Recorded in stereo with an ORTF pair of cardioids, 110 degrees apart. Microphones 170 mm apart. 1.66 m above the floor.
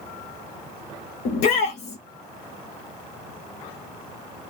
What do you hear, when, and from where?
1.2 s a shout: 65° left, 0.7 m